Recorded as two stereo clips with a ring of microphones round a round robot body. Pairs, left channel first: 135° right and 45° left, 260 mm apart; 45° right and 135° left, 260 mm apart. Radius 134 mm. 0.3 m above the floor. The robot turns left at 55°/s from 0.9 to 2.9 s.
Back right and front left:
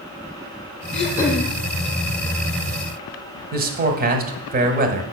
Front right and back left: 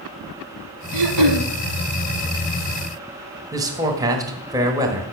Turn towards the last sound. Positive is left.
turn(degrees=65)